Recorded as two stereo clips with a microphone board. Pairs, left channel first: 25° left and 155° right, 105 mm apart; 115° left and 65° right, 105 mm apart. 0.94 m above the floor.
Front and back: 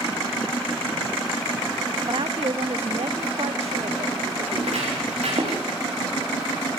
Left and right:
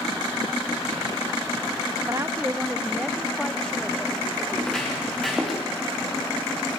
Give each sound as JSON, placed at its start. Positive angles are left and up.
{"t": 2.1, "sound": "a woman speaking", "azimuth_deg": -120, "distance_m": 0.8}
{"t": 4.5, "sound": "footsteps", "azimuth_deg": -165, "distance_m": 9.0}